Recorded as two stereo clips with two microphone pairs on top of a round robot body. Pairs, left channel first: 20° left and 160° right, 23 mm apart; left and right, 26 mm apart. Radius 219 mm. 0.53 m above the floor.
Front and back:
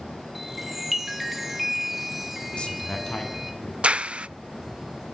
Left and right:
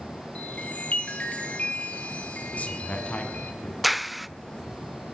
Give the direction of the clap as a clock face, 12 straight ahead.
6 o'clock.